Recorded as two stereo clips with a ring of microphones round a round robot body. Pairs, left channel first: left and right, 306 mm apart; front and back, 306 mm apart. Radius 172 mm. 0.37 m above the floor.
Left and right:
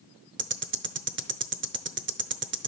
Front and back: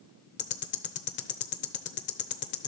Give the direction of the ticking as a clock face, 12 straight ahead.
2 o'clock.